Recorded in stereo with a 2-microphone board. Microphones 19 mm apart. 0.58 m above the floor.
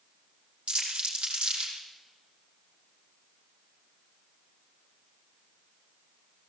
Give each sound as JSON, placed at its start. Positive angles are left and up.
{"t": 0.7, "sound": "crumpling", "side_deg": -85, "distance_m": 6.5}